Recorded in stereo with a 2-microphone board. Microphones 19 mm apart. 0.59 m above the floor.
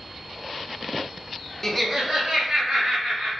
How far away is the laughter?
About 0.6 m.